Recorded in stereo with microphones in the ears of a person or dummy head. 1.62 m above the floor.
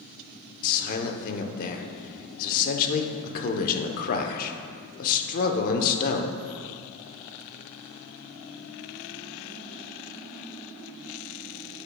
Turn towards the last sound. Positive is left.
turn(degrees=45)  # may be behind; listen again after turning